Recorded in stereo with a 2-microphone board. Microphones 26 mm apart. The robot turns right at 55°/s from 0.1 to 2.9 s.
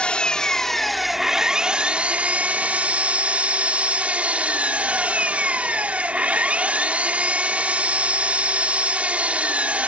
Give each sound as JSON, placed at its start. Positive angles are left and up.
{"t": 0.0, "sound": "an engine running", "azimuth_deg": 140}